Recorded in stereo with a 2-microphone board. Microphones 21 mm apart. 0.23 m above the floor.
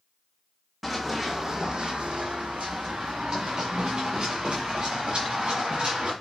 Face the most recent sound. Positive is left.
turn(degrees=-55)  # may be behind; listen again after turning